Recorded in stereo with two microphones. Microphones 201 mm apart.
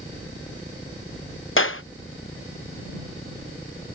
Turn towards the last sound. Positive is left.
turn(degrees=75)  # may be behind; listen again after turning